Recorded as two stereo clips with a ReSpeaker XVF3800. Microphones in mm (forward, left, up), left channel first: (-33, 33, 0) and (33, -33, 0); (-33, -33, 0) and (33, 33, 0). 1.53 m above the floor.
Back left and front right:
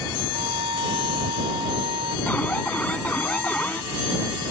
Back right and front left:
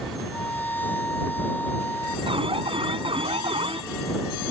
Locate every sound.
0.3 s a violin: 65° right
2.3 s an alarm: 60° left